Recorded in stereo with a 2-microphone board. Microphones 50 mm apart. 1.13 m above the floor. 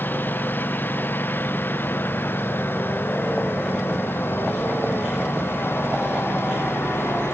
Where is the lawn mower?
40° left (ahead or behind); by 7.3 s 50° left (ahead or behind).